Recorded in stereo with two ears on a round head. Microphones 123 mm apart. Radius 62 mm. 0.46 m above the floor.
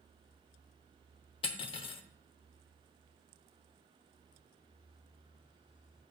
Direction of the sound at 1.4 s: 40° left (ahead or behind).